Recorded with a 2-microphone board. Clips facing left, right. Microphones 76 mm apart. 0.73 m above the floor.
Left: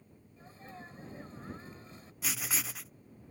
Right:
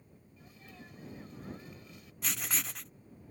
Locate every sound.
0.4 s a sneeze: 35° left (ahead or behind)
2.2 s writing: 5° left (ahead or behind)